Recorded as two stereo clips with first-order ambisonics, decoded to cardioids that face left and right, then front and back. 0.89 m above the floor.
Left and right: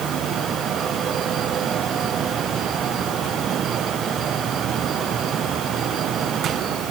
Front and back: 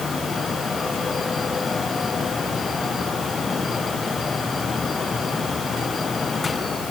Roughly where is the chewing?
I don't hear chewing.